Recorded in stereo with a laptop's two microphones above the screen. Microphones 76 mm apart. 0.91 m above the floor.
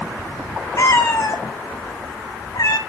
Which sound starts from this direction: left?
A cat meowing, at 0.8 s.